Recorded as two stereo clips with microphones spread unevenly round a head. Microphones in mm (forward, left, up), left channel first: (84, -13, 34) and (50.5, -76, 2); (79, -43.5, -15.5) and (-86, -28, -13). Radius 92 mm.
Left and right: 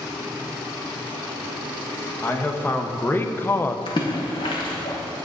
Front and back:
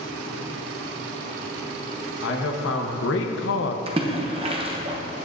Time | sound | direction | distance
2.2 | a man speaking | straight ahead | 1.5 m
3.9 | a splash | 115° left | 0.8 m